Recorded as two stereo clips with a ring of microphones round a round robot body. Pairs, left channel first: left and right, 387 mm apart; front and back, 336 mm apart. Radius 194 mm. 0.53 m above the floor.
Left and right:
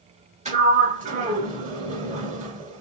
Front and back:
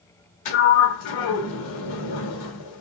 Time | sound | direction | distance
0.5 | a sliding door | 20° right | 1.2 m